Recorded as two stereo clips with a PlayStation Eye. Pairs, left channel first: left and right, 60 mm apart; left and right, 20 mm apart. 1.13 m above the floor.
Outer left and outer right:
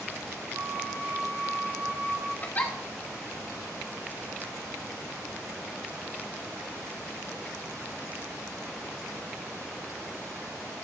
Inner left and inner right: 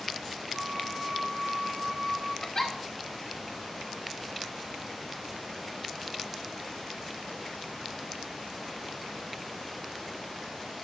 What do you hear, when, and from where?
0.5 s a flute: 75° right (ahead or behind), 5 m
2.4 s a giggle: 30° left (ahead or behind), 1.1 m